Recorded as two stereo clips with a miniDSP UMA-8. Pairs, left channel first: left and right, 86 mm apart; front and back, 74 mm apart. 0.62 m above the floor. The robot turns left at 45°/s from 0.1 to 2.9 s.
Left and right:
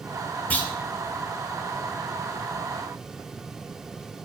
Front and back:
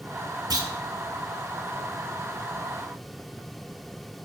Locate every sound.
0.5 s a clunk: 160° left, 2.5 m; by 0.7 s 155° left, 2.5 m